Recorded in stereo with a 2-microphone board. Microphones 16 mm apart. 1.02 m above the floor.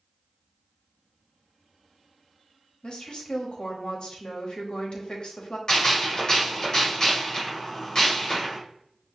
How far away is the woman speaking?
About 1.3 m.